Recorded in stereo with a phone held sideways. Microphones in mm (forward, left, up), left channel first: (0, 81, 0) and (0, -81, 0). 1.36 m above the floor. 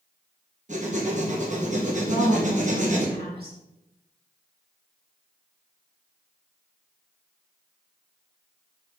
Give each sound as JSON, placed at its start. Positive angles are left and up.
{"t": 0.7, "sound": "writing", "side_deg": -50, "distance_m": 1.4}
{"t": 2.1, "sound": "a woman speaking", "side_deg": -75, "distance_m": 2.0}